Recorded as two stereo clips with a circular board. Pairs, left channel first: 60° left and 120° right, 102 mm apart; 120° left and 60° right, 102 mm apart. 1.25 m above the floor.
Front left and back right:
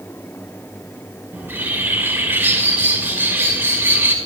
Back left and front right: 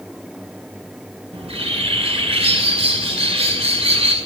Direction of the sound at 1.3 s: 50° right.